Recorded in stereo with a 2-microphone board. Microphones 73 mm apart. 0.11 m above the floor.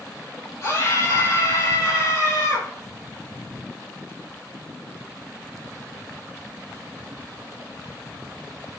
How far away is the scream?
About 4.5 m.